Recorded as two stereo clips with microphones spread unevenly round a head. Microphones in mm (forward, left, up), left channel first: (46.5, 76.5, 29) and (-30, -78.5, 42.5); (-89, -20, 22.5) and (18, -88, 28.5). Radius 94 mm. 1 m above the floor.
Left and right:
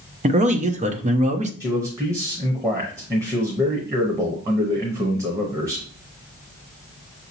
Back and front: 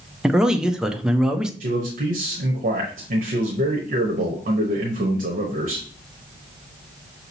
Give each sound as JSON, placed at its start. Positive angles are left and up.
{"t": 0.2, "sound": "a man speaking", "azimuth_deg": -120, "distance_m": 0.7}
{"t": 1.6, "sound": "a man speaking", "azimuth_deg": -40, "distance_m": 0.9}